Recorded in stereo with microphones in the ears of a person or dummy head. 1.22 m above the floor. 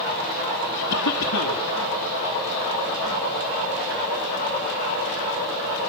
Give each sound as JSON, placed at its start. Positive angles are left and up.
{"t": 0.9, "sound": "a cough", "side_deg": 80, "distance_m": 2.5}